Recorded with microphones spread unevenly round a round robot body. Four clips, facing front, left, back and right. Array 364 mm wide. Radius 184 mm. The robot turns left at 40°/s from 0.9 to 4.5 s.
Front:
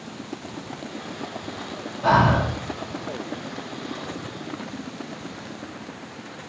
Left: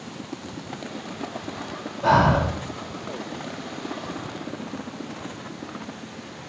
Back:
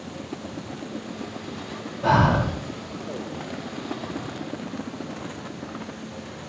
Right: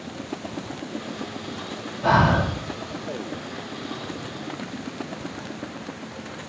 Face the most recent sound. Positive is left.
turn(degrees=100)